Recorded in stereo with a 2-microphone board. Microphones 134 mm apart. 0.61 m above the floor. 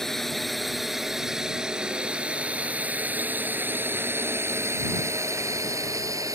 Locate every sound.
0.0 s a drone: centre (ahead or behind); by 6.4 s 25° right (ahead or behind)